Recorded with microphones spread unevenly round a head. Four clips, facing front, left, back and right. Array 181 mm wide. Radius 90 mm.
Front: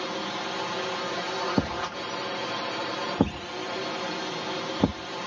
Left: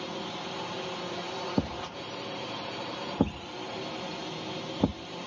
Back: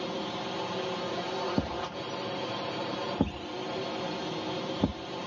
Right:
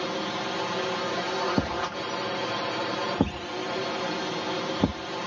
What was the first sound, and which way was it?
A drone, 70° right.